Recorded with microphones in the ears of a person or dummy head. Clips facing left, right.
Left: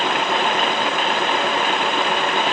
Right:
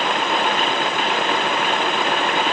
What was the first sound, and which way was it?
Only background noise.